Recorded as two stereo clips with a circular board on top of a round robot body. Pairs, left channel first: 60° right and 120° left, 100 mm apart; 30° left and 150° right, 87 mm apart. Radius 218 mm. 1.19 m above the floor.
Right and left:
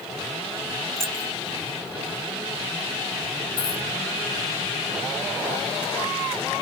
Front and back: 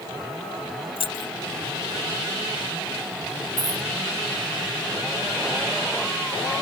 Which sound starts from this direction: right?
A dropped coin, at 3.6 s.